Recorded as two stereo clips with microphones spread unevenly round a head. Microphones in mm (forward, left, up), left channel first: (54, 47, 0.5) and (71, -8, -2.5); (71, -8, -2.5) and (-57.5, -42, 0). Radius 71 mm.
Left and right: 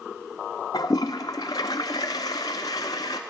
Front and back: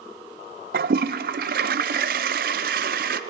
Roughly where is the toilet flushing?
Behind.